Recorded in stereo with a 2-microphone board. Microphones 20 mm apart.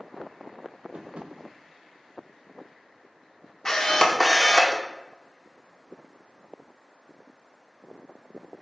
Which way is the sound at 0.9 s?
65° right (ahead or behind).